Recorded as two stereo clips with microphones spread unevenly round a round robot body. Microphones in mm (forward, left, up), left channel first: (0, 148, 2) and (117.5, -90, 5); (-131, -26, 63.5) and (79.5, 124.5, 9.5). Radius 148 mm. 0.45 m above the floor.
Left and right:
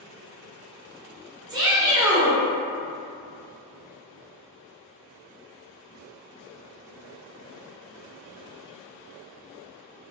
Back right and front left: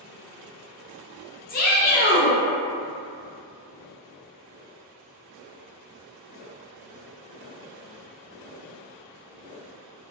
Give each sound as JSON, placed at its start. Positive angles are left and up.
{"t": 1.5, "sound": "a shout", "azimuth_deg": -115, "distance_m": 0.7}